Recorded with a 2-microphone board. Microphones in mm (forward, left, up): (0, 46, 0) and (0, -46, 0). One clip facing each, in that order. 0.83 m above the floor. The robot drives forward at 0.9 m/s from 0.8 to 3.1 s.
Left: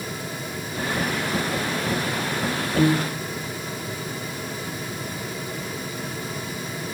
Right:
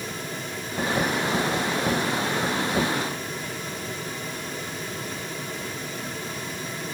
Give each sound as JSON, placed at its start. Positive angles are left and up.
{"t": 2.8, "sound": "a piano", "side_deg": 60}